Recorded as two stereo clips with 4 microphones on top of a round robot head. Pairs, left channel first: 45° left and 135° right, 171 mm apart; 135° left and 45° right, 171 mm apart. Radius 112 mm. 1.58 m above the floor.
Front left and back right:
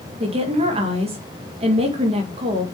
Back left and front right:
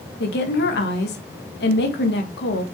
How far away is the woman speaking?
About 1.9 m.